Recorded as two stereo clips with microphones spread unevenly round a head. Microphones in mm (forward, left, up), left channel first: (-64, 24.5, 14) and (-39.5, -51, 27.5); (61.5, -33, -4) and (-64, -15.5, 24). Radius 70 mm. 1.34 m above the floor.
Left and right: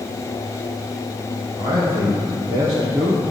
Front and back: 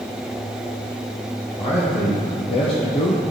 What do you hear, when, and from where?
1.6 s a man speaking: 55° right, 1.9 m; by 3.2 s 30° right, 1.1 m